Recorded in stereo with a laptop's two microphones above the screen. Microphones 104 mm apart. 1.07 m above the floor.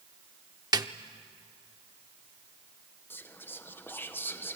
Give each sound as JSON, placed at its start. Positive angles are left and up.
{"t": 0.7, "sound": "a snare drum", "side_deg": -40, "distance_m": 0.7}
{"t": 3.1, "sound": "whispering", "side_deg": 20, "distance_m": 0.7}